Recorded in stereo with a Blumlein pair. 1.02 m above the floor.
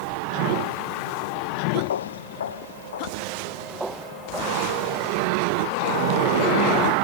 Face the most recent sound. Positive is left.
turn(degrees=-10)